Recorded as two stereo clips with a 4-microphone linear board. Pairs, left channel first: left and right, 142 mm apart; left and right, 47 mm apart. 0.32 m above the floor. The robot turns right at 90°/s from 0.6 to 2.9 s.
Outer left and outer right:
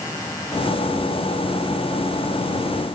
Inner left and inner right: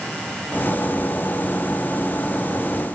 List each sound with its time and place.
Only background noise.